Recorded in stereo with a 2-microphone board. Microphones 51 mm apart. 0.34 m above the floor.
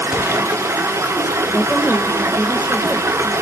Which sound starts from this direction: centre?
A woman speaking, at 1.5 s.